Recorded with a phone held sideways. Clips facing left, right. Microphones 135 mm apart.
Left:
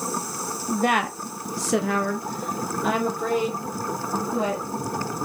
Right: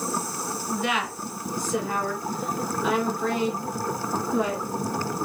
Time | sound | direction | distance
0.7 | a woman speaking | 35° left (ahead or behind) | 0.6 m